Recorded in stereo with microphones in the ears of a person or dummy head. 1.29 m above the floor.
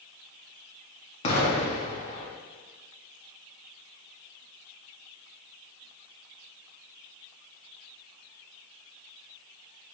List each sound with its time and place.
1.2 s an explosion: 35° left (ahead or behind), 0.6 m